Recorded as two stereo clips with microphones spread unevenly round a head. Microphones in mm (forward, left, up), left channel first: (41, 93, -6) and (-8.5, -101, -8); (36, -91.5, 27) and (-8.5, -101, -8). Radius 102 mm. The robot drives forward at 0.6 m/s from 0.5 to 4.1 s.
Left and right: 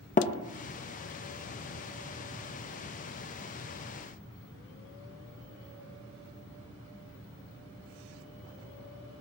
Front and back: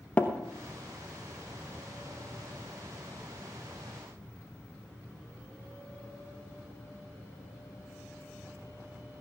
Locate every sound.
0.2 s tapping: 30° left, 0.9 m